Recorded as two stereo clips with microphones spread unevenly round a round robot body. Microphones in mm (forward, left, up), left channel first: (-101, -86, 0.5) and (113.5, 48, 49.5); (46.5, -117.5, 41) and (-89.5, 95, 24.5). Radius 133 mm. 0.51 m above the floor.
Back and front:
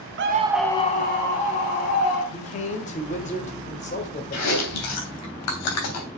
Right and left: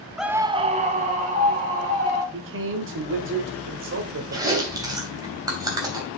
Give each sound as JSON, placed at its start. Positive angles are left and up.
{"t": 0.2, "sound": "a scream", "azimuth_deg": 40, "distance_m": 0.8}
{"t": 2.3, "sound": "a man speaking", "azimuth_deg": 155, "distance_m": 1.7}
{"t": 4.3, "sound": "chewing", "azimuth_deg": -160, "distance_m": 2.5}